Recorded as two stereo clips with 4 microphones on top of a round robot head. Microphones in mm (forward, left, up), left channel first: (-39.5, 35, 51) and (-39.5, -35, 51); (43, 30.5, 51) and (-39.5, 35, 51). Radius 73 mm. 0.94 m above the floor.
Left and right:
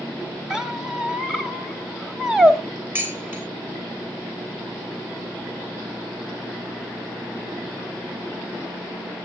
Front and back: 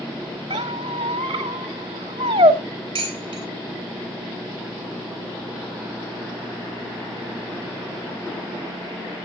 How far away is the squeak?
About 1.0 m.